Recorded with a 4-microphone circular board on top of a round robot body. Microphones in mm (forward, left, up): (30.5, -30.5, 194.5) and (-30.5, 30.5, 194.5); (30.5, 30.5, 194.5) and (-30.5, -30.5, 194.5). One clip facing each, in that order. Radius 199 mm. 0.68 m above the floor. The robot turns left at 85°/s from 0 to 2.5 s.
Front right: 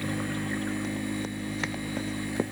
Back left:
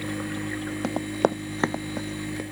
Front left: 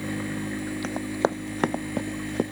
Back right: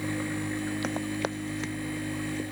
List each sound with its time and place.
0.8 s running footsteps: 140° left; by 2.4 s 20° left